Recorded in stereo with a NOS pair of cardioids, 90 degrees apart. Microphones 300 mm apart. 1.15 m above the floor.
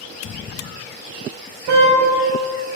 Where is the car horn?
70° right, 4 m.